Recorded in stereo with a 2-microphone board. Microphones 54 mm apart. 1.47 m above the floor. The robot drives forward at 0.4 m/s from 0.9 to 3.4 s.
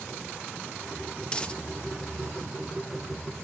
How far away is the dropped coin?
About 0.7 m.